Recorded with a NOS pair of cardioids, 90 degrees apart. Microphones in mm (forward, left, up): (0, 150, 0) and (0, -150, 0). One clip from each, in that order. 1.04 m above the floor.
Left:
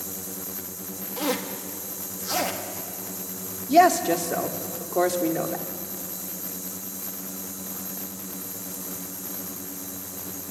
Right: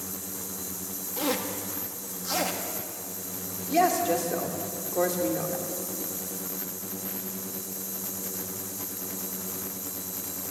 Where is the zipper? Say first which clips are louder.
Left 1 dB; 10° left, 1.8 m.